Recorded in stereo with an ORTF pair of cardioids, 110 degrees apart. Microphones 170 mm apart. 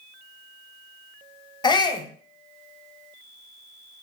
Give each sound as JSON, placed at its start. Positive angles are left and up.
{"t": 1.6, "sound": "a shout", "azimuth_deg": 25, "distance_m": 0.6}